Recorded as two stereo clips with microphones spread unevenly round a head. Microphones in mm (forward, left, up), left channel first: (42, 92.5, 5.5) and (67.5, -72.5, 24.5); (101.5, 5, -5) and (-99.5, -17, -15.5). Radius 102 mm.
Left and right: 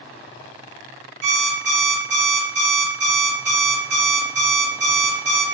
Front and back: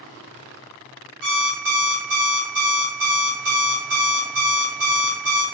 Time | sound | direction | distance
1.2 | an alarm clock | 140° right | 2 m